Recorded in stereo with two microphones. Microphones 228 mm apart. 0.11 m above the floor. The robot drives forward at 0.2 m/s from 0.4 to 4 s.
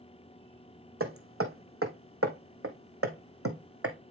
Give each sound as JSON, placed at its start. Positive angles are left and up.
{"t": 1.0, "sound": "hammering", "side_deg": -70, "distance_m": 2.0}